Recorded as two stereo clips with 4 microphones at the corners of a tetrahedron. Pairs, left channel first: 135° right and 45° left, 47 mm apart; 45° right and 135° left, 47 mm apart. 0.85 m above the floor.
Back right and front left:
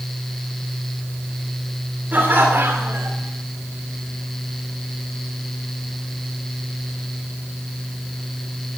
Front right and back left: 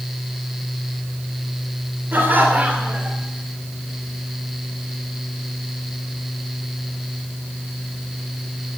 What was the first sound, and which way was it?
Laughter, 95° left.